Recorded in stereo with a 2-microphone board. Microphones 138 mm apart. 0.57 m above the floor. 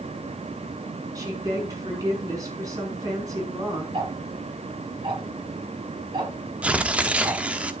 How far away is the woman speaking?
About 6 m.